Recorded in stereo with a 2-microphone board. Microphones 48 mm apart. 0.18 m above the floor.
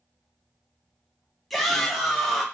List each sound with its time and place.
1.5 s a shout: 5° left (ahead or behind), 1.2 m